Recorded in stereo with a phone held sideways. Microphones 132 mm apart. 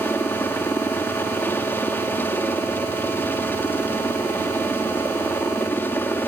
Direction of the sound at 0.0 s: 15° left (ahead or behind).